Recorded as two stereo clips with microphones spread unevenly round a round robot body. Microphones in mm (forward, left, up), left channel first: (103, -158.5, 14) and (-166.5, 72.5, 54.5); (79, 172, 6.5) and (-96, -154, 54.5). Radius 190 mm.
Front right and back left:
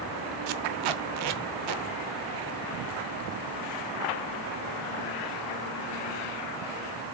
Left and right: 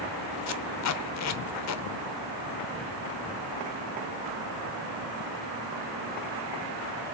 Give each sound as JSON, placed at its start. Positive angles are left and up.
{"t": 0.5, "sound": "tape being pulled", "azimuth_deg": 110, "distance_m": 0.9}